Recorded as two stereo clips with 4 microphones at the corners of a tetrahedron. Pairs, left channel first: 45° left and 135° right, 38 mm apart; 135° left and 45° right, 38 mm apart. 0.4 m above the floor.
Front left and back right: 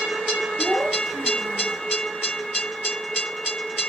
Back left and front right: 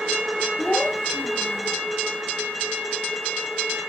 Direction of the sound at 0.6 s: 170° right.